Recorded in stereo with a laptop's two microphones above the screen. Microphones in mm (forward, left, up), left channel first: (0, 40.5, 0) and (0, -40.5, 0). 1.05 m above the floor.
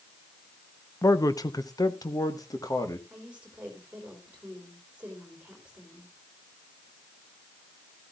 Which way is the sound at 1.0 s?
40° left (ahead or behind).